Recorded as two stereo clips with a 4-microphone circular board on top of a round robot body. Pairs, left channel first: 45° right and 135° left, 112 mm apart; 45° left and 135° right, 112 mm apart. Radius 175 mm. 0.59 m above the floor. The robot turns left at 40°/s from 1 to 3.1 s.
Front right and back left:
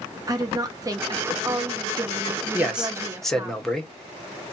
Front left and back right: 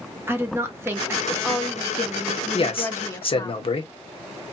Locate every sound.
0.3 s a woman speaking: 170° left, 0.8 m; by 3.5 s 85° left, 0.8 m
2.5 s a man speaking: 65° left, 1.0 m; by 3.9 s 40° left, 1.0 m